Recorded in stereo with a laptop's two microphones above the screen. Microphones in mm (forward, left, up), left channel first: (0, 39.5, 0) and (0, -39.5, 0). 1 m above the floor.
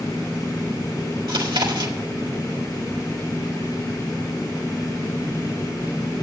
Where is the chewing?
80° right, 1.6 m.